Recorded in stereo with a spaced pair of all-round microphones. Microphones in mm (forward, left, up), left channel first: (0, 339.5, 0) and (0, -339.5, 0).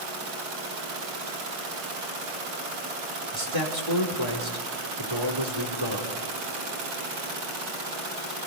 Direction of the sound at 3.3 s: 40° right (ahead or behind).